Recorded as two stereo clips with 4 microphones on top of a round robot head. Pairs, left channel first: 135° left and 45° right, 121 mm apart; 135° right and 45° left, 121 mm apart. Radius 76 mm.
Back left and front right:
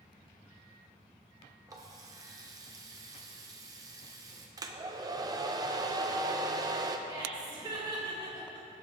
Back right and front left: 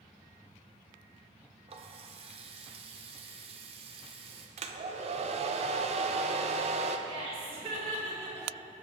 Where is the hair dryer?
15° left, 0.7 m.